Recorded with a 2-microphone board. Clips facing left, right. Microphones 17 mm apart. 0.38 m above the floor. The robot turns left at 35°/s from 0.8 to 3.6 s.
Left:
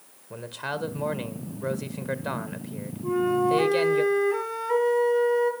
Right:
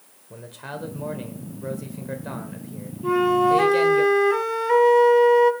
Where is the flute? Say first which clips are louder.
Right 5 dB; 55° right (ahead or behind), 1.6 m; by 5.5 s 40° right (ahead or behind), 1.6 m.